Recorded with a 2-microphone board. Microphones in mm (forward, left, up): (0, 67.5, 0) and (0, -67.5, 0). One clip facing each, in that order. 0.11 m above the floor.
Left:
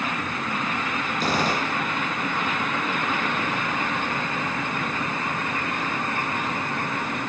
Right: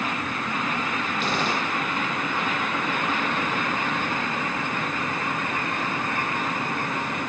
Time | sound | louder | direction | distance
1.2 | a gunshot | left 3 dB | 45° left (ahead or behind) | 1.4 m